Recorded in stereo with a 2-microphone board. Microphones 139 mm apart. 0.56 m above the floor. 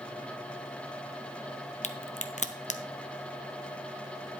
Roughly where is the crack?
Left.